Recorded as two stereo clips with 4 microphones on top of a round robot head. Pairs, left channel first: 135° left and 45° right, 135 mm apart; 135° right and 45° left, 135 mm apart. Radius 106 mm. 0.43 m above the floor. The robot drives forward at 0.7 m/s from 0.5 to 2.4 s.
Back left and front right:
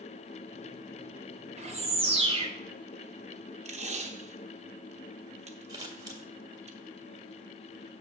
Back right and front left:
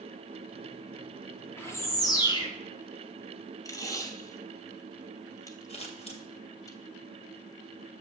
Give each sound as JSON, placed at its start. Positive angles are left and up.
{"t": 1.6, "sound": "a bird", "azimuth_deg": -65, "distance_m": 1.7}
{"t": 3.6, "sound": "tape being pulled", "azimuth_deg": -70, "distance_m": 1.3}
{"t": 5.7, "sound": "scissors", "azimuth_deg": -105, "distance_m": 2.0}